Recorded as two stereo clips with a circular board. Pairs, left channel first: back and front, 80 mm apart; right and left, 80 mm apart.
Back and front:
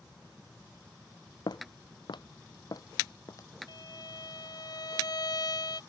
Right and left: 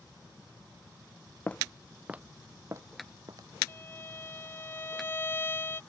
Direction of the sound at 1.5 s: 155° right.